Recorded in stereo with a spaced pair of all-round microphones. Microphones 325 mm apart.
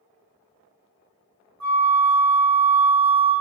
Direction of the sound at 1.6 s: 60° right (ahead or behind).